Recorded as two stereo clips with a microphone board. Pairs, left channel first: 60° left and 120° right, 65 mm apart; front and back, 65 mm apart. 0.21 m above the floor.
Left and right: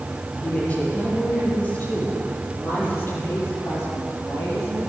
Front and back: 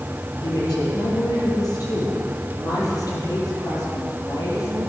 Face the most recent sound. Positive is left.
turn(degrees=25)